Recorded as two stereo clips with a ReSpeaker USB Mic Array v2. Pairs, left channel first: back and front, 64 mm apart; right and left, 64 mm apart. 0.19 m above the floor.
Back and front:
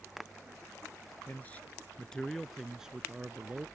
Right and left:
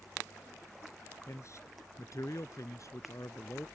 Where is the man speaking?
120° right; by 3.7 s 55° right.